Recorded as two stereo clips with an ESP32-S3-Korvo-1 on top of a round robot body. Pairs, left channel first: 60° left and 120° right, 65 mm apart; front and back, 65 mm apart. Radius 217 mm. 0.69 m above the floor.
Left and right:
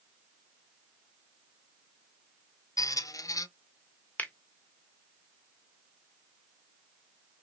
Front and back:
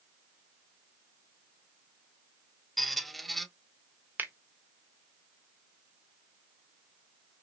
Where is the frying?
No frying in this recording.